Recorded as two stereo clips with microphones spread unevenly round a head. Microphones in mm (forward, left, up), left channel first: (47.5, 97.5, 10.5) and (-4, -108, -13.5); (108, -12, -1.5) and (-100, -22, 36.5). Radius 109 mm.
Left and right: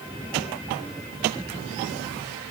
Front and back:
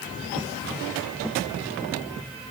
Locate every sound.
Only background noise.